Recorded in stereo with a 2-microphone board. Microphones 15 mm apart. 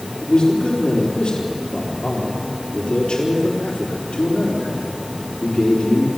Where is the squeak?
No squeak in this recording.